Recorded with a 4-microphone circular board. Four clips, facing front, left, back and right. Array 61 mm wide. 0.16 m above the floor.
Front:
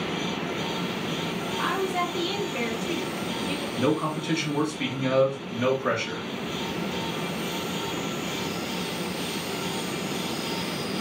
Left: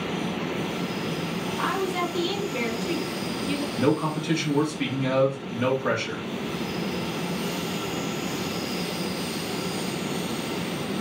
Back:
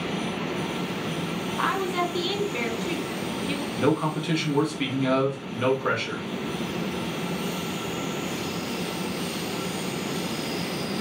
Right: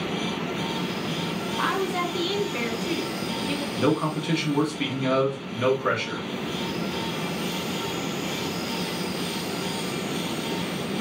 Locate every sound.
1.6 s a woman speaking: 160° right, 1.1 m
3.8 s a man speaking: 125° right, 1.3 m